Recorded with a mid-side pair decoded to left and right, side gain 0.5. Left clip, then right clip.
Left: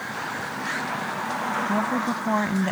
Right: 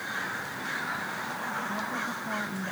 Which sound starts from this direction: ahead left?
A woman speaking, at 1.7 s.